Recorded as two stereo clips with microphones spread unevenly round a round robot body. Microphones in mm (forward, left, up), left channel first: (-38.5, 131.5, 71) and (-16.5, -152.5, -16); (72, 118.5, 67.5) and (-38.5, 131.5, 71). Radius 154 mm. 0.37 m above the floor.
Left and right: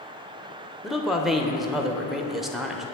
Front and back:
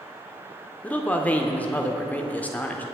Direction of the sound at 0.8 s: 55° right.